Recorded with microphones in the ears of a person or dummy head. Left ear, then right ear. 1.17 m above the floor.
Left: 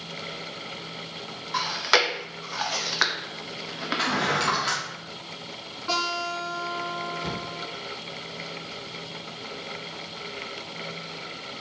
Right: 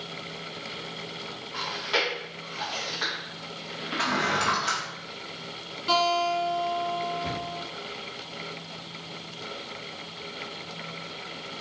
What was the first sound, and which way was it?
Chewing, 55° left (ahead or behind).